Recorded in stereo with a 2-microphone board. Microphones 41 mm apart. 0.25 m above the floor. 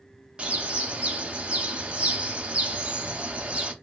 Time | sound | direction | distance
0.4 | a bird | 30° right (ahead or behind) | 0.7 m